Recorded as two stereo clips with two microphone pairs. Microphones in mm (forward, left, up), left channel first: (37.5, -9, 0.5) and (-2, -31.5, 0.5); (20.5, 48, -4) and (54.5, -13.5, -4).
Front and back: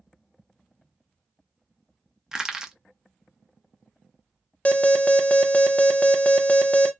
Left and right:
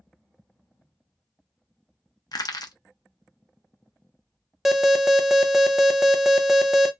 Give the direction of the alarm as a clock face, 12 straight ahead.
11 o'clock.